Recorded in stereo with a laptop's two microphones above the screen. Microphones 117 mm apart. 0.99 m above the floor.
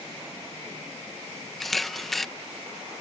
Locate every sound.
1.6 s a camera shutter: centre (ahead or behind)